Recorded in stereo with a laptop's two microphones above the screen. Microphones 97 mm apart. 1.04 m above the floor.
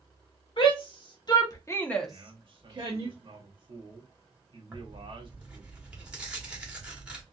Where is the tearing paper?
10° right (ahead or behind), 1.3 m.